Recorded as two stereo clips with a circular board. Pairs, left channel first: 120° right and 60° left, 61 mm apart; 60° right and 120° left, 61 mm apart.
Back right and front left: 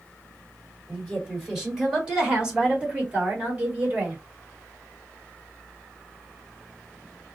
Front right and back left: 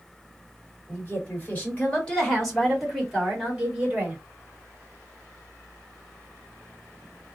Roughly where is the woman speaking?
Ahead right.